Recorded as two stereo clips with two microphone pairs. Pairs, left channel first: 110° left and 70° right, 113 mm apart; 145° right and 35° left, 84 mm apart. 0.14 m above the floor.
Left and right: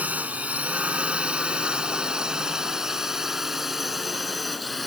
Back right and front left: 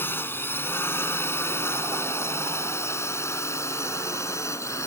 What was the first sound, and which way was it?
A drone, 130° right.